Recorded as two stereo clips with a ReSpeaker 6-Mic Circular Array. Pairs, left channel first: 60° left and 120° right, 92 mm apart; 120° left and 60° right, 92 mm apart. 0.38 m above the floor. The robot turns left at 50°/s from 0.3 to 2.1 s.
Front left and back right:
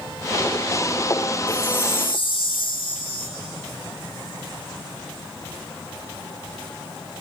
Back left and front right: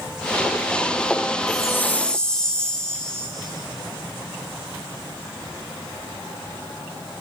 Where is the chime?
70° left, 3 m; by 3.3 s 40° left, 3 m.